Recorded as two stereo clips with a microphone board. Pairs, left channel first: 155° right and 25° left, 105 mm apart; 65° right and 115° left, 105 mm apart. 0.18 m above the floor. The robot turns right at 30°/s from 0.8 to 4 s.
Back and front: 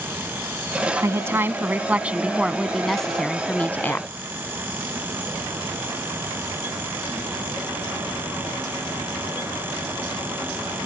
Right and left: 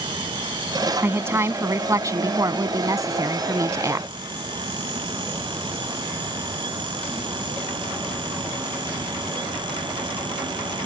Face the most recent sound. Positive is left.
turn(degrees=150)